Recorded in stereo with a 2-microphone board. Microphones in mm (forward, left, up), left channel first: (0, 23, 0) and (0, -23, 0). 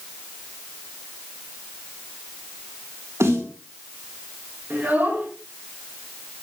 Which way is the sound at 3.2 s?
75° right (ahead or behind).